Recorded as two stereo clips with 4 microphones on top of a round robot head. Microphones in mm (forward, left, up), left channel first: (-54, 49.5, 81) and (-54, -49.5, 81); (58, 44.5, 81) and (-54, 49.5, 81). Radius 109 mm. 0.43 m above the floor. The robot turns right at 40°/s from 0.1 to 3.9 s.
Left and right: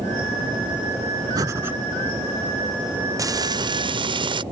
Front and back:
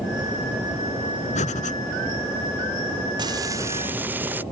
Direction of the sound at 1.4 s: 30° right.